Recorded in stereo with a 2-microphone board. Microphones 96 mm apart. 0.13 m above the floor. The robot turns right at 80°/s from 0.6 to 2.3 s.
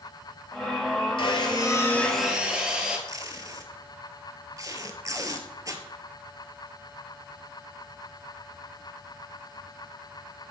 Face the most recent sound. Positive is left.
turn(degrees=-35)  # may be behind; listen again after turning